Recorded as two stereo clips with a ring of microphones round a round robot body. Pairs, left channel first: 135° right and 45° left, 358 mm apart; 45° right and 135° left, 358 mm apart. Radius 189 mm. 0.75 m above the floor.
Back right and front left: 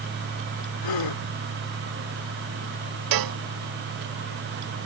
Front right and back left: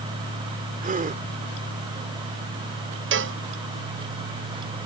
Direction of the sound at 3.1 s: 75° left.